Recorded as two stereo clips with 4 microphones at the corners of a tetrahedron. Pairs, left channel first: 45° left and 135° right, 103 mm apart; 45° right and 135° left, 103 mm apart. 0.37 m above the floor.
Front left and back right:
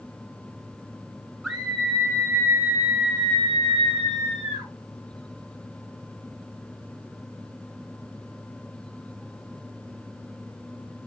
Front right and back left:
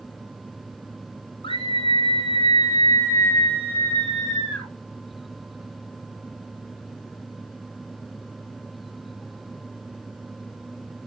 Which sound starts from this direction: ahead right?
A scream, at 1.4 s.